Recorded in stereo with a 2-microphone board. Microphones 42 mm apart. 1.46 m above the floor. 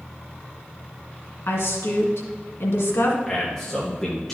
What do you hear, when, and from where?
1.5 s a woman speaking: 75° left (ahead or behind), 1.8 m
3.3 s a man speaking: 5° left (ahead or behind), 1.6 m